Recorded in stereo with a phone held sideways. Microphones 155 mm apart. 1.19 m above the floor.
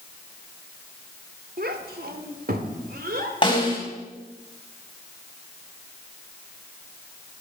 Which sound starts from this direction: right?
A child speaking, at 1.6 s.